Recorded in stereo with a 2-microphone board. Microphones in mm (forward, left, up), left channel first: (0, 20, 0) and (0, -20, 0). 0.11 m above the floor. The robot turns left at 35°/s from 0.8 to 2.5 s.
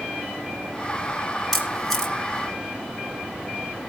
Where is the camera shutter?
5° left (ahead or behind), 1.6 m; by 2.1 s 15° left (ahead or behind), 1.6 m.